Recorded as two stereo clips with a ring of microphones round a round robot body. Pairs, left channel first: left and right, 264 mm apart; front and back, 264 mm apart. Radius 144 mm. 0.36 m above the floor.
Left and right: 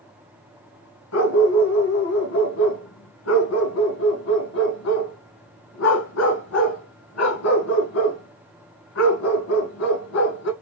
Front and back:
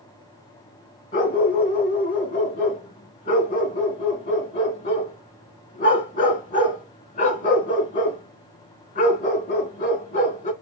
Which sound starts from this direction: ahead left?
A dog barking, at 1.1 s.